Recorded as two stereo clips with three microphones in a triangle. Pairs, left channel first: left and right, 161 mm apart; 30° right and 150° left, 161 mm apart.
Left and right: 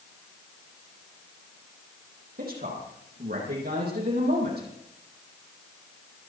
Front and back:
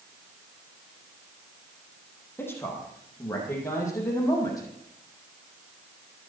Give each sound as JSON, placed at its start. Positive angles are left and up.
{"t": 2.4, "sound": "a man speaking", "azimuth_deg": -105, "distance_m": 8.5}